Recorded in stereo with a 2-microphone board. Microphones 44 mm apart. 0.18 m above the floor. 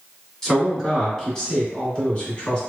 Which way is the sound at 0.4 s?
10° left (ahead or behind).